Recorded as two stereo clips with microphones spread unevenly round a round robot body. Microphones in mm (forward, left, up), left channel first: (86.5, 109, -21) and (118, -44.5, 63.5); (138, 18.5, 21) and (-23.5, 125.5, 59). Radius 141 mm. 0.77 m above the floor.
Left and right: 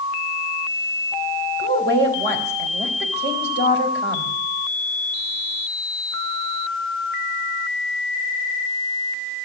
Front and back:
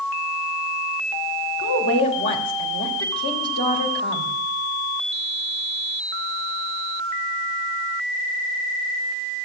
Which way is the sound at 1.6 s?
65° right.